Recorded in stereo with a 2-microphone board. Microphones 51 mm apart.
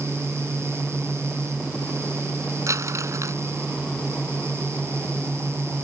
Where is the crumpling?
85° right.